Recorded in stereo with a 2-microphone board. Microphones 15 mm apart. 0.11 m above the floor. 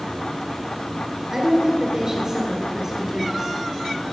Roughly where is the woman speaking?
Right.